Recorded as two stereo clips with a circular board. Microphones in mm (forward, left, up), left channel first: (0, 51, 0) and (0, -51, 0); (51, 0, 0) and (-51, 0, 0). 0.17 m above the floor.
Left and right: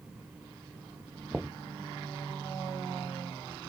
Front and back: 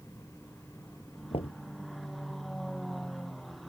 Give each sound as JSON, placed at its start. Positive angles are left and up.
{"t": 1.3, "sound": "knocking", "azimuth_deg": -10}